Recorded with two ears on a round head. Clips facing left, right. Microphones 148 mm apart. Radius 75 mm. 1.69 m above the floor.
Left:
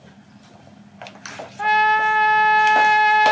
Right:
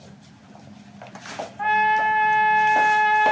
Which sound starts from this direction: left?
A trumpet, at 1.6 s.